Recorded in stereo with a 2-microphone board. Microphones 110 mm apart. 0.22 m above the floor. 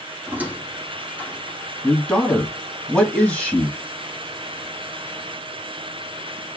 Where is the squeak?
15° right (ahead or behind), 1.8 m.